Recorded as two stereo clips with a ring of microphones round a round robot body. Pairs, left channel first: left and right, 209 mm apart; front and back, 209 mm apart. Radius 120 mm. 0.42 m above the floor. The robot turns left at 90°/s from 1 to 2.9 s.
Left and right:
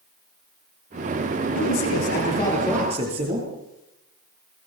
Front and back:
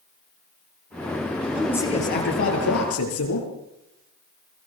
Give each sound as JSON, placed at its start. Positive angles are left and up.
{"t": 1.6, "sound": "a man speaking", "azimuth_deg": 95, "distance_m": 8.5}